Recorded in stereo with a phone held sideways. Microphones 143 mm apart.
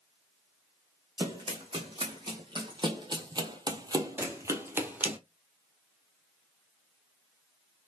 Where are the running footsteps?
35° right (ahead or behind), 2 m; by 5.2 s 10° right (ahead or behind), 1.2 m.